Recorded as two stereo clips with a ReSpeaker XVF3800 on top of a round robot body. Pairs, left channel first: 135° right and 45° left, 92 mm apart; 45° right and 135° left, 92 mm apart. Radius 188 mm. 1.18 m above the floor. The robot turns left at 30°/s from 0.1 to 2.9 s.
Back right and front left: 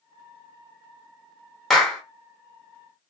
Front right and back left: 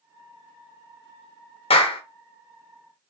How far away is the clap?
About 1.3 m.